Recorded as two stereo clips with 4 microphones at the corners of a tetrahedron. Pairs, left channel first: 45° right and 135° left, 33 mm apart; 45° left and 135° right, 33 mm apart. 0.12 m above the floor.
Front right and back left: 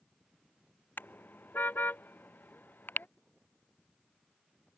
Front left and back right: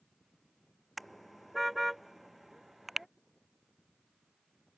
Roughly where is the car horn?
Ahead right.